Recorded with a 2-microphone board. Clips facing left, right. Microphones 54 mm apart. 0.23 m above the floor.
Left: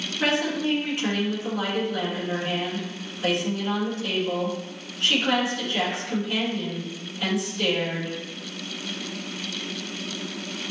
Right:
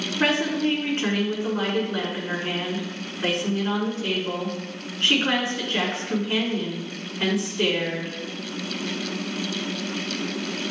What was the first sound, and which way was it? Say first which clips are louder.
A woman speaking: right 2 dB; 35° right (ahead or behind).